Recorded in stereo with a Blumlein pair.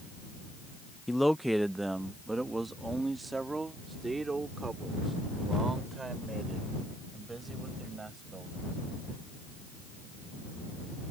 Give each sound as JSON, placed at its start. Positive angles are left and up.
{"t": 1.1, "sound": "a man speaking", "azimuth_deg": 5}